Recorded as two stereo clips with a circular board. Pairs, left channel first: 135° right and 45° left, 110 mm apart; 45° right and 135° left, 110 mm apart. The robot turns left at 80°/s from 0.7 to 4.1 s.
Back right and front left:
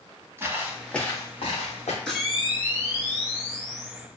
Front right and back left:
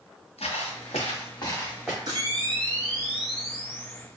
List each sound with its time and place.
0.4 s footsteps: 20° right, 1.0 m; by 2.0 s 145° right, 1.6 m
2.1 s a camera shutter: 145° left, 1.0 m; by 4.0 s 10° right, 1.0 m